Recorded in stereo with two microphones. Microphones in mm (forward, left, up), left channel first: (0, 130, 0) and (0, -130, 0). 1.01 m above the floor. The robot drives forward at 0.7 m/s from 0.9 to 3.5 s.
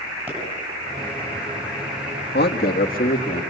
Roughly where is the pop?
Right.